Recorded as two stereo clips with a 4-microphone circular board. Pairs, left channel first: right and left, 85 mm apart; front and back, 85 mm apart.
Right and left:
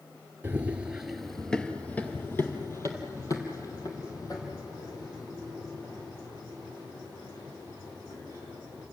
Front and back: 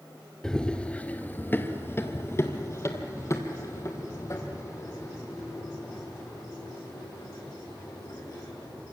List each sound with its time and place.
0.4 s running footsteps: 70° left, 1.6 m; by 8.8 s 55° right, 7.5 m